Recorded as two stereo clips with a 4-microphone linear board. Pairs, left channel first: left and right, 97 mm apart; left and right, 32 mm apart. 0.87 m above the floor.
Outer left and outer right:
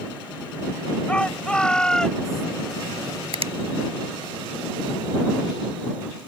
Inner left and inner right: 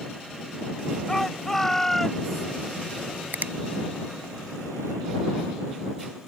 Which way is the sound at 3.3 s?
85° right.